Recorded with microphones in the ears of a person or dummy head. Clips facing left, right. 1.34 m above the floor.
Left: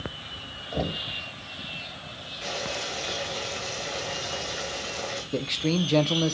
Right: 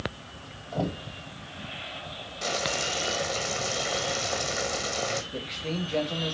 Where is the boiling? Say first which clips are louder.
Right 2 dB; 55° right (ahead or behind), 1.6 m.